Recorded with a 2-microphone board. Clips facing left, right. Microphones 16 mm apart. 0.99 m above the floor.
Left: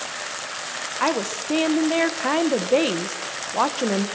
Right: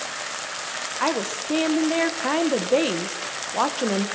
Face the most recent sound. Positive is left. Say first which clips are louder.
# left 2 dB
turn(degrees=15)  # may be behind; listen again after turning